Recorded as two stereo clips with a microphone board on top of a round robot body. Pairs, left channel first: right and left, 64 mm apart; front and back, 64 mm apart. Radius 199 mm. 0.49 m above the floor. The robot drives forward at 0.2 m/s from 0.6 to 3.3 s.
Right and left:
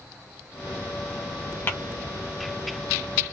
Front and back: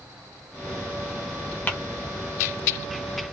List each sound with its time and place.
1.7 s tapping: 55° right, 1.5 m